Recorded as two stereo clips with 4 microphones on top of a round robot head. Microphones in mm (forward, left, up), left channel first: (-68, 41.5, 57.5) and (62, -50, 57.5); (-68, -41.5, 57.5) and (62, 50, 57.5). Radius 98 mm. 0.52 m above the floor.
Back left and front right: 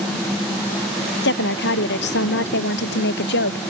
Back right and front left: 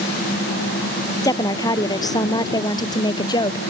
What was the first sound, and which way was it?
A woman speaking, 145° left.